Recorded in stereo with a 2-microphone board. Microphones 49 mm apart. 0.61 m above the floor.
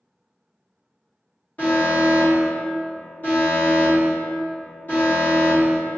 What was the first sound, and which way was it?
An alarm, 35° left (ahead or behind).